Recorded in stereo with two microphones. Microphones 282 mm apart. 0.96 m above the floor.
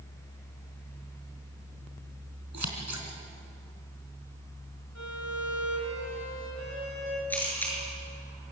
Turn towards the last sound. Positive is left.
turn(degrees=5)  # may be behind; listen again after turning